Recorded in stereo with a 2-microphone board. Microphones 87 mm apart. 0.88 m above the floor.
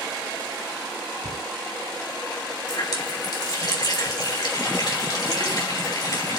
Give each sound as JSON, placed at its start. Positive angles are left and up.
{"t": 1.2, "sound": "a cupboard door", "side_deg": -70, "distance_m": 3.0}
{"t": 2.7, "sound": "a running tap", "side_deg": 55, "distance_m": 4.0}